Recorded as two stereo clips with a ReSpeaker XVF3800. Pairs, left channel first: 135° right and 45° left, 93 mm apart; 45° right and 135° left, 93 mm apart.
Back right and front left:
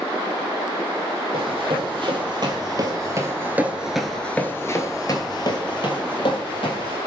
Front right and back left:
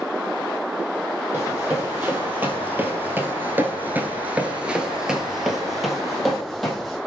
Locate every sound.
1.3 s running footsteps: 65° left, 1.7 m; by 7.0 s 130° right, 1.7 m